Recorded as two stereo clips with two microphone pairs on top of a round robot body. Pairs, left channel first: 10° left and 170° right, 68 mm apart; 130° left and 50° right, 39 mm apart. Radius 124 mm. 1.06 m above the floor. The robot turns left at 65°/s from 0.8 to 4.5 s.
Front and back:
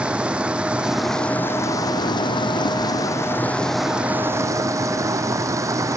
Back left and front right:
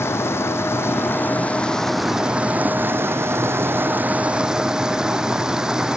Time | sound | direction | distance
0.0 | running water | 115° left | ?